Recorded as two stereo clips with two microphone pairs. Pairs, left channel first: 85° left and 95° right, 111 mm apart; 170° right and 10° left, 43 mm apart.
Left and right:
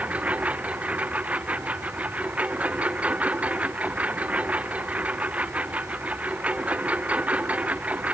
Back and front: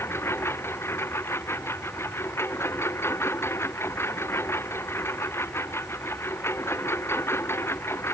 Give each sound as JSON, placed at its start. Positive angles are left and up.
{"t": 0.0, "sound": "a lawn mower", "azimuth_deg": -170}